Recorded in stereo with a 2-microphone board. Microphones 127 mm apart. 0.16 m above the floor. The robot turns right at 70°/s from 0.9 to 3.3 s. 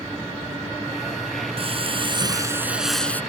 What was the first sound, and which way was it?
Frying, 95° right.